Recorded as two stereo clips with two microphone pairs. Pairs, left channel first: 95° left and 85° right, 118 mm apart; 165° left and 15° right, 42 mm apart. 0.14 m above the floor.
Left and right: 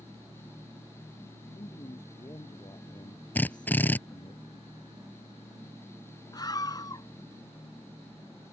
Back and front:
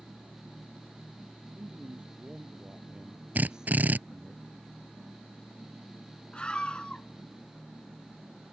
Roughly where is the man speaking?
Ahead left.